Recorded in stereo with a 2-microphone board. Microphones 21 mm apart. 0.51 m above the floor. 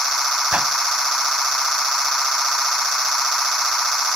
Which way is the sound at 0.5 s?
70° right (ahead or behind).